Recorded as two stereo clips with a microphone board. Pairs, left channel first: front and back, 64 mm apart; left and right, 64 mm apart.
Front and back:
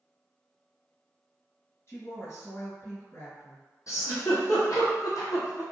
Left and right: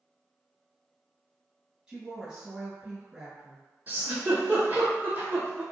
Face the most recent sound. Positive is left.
turn(degrees=-25)